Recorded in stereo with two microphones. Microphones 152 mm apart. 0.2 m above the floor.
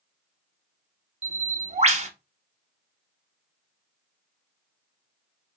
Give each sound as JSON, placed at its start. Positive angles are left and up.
{"t": 1.2, "sound": "a bird", "side_deg": -45, "distance_m": 0.6}